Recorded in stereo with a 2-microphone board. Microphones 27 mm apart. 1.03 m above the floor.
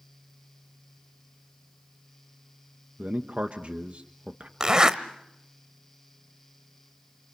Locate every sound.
3.0 s a man speaking: 55° right (ahead or behind), 1.3 m
4.6 s a zipper: 25° right (ahead or behind), 1.1 m